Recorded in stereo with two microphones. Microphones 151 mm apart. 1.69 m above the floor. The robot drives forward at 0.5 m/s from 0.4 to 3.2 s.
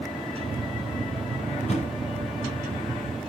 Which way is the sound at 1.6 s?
45° left (ahead or behind).